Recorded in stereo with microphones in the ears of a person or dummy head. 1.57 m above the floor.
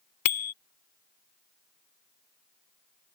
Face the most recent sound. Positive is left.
turn(degrees=45)  # may be behind; listen again after turning